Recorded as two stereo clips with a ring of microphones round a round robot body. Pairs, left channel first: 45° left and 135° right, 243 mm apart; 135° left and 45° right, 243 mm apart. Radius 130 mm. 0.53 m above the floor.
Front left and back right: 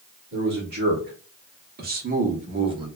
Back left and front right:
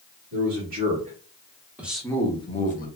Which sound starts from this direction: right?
A man speaking, at 0.3 s.